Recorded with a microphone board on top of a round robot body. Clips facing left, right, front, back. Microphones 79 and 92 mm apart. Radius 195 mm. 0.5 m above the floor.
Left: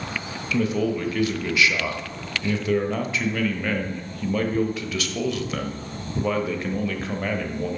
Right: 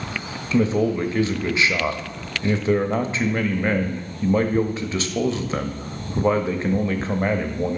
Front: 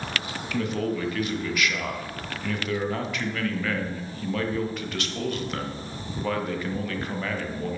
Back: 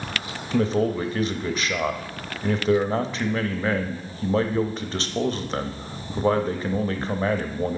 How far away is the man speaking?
About 1.0 m.